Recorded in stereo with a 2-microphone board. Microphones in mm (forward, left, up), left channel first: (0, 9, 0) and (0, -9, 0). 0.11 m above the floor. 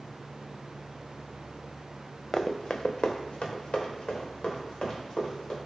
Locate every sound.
2.3 s running footsteps: 35° left (ahead or behind), 0.5 m; by 5.6 s 55° left (ahead or behind), 3 m